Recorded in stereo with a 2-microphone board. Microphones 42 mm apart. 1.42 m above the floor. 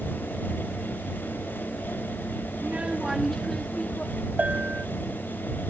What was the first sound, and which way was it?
A child speaking, 45° right (ahead or behind).